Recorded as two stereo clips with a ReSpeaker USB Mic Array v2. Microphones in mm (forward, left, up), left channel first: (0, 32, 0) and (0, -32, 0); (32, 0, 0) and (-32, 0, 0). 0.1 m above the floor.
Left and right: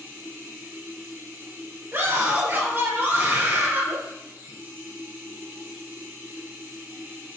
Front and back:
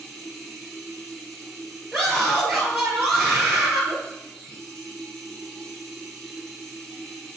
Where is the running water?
75° right, 1.6 m.